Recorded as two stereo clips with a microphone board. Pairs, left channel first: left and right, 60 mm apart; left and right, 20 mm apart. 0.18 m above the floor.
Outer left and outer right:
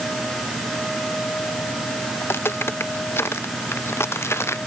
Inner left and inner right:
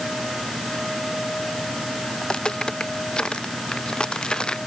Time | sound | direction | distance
2.2 | footsteps | 45° left (ahead or behind) | ?